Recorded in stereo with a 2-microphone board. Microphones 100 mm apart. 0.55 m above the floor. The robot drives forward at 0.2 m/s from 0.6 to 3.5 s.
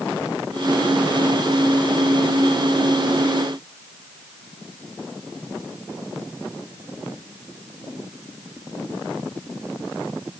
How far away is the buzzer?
No buzzer in this recording.